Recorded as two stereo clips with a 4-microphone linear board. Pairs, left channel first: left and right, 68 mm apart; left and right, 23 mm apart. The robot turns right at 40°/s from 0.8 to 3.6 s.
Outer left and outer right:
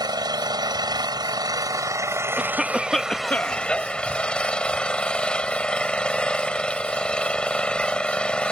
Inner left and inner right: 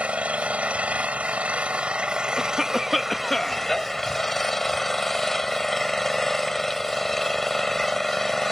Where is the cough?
20° right; by 3.7 s 30° left.